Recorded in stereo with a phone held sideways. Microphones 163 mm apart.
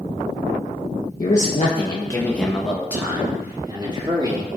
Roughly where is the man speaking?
Left.